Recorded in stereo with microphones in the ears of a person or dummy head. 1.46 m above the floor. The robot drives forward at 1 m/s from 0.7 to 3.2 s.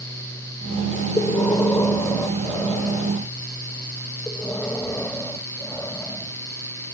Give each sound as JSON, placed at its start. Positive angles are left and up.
{"t": 1.2, "sound": "breathing", "side_deg": 15}